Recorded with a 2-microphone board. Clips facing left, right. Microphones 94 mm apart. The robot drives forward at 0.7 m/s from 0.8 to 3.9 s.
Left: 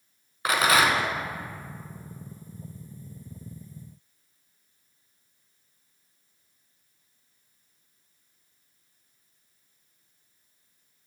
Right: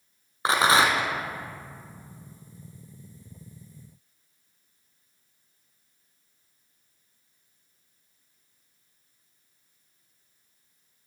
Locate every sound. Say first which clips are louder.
0.5 s a rattle: right 1 dB; 30° right (ahead or behind), 0.7 m; by 1.1 s 20° right (ahead or behind), 0.8 m